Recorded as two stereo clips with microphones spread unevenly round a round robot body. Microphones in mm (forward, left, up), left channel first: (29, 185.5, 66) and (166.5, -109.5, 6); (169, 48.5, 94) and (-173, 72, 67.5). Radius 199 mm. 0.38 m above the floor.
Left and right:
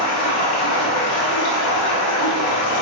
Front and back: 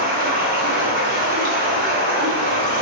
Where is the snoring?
I don't hear snoring.